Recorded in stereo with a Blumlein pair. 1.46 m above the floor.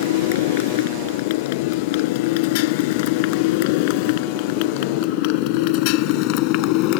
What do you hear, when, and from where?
0.0 s a motorcycle: 50° left; by 7.0 s 40° left